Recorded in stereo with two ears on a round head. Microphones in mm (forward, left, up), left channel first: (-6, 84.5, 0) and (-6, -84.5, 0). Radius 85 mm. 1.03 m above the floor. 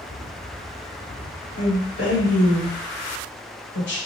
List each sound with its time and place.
1.6 s a woman speaking: 65° left (ahead or behind), 1.5 m